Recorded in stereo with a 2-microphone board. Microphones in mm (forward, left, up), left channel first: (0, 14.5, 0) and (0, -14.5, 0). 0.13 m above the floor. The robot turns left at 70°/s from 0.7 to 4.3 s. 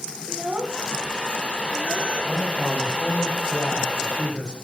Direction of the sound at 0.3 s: 45° right (ahead or behind).